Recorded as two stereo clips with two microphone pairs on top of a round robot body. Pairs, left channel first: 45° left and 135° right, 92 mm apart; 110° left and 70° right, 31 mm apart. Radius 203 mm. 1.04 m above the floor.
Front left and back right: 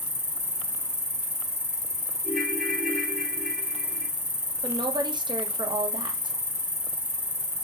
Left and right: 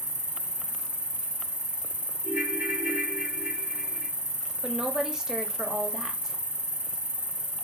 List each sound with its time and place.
0.0 s an insect: 95° right, 1.2 m
2.2 s a ringtone: 45° right, 0.8 m
4.6 s a woman speaking: 130° right, 0.7 m